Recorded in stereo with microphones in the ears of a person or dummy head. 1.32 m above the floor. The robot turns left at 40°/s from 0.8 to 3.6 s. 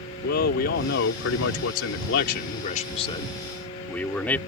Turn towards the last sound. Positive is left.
turn(degrees=10)